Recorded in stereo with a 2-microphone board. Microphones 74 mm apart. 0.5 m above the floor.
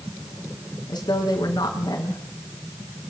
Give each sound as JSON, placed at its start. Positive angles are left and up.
{"t": 0.9, "sound": "a woman speaking", "side_deg": 75, "distance_m": 6.0}